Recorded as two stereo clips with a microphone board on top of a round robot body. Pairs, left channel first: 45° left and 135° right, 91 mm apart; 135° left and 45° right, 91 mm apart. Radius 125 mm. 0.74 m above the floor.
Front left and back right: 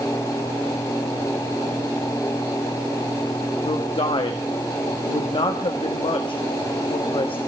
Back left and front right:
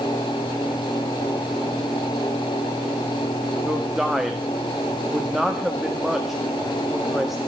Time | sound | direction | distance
3.6 | a man speaking | 40° left | 1.5 m